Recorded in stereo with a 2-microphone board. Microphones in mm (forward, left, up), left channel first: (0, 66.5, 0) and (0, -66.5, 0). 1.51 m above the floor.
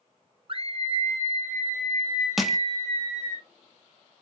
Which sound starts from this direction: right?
A scream, at 0.5 s.